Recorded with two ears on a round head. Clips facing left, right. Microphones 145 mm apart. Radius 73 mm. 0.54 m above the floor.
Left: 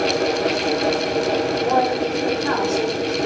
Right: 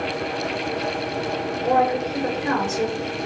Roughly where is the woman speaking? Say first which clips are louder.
Right 3 dB; right.